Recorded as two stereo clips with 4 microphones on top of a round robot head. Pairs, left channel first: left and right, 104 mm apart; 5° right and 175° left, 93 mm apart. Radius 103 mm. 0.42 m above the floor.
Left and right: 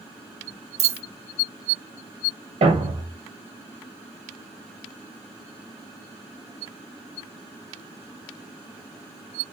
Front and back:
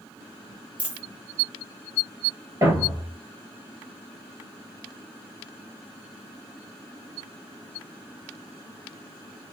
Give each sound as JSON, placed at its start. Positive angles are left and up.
{"t": 0.8, "sound": "a dropped coin", "azimuth_deg": -105, "distance_m": 1.0}
{"t": 2.6, "sound": "a thud", "azimuth_deg": -120, "distance_m": 1.8}